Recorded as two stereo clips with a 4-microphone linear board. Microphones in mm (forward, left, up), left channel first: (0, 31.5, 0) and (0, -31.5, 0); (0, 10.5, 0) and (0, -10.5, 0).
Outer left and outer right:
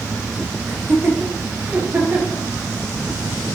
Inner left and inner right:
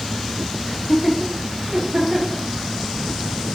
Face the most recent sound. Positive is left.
turn(degrees=-25)  # may be behind; listen again after turning